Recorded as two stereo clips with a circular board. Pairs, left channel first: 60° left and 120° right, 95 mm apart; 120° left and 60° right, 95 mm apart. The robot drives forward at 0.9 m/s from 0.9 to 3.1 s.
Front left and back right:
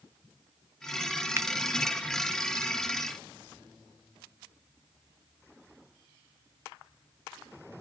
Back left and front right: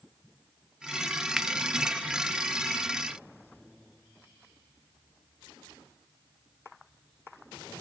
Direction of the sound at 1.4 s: 140° right.